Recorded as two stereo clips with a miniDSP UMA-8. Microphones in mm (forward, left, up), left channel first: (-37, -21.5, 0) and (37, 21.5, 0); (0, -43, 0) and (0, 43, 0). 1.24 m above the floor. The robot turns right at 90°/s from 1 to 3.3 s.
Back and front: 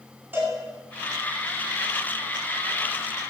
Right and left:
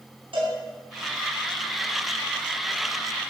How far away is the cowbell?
About 9.5 m.